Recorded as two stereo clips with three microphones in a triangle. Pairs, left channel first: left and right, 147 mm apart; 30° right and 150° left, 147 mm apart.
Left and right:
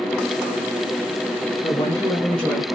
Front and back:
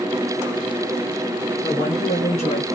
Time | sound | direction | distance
1.6 | a woman speaking | 25° left | 1.8 m